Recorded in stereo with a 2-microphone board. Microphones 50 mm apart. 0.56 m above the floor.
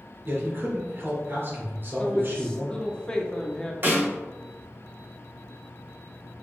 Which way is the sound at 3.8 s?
40° right (ahead or behind).